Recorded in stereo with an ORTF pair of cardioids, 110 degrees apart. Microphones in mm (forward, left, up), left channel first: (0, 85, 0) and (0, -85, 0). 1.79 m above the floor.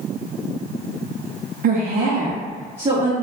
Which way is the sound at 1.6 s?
50° right.